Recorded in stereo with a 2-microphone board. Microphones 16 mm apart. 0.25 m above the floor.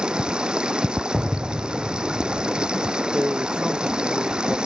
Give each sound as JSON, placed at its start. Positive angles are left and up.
{"t": 0.0, "sound": "running water", "side_deg": -65}
{"t": 1.1, "sound": "an explosion", "side_deg": -30}
{"t": 3.1, "sound": "a man speaking", "side_deg": -85}